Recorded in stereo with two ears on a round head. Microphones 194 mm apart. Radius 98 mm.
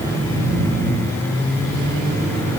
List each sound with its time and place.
Only background noise.